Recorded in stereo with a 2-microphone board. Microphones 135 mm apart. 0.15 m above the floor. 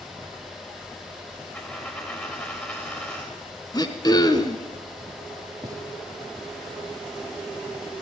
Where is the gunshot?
25° right (ahead or behind), 4 m.